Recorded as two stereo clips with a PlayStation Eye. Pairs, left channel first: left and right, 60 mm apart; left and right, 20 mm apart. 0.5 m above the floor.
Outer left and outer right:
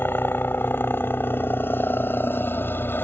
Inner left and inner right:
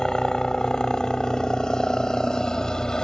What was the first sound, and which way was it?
A helicopter, 35° left (ahead or behind).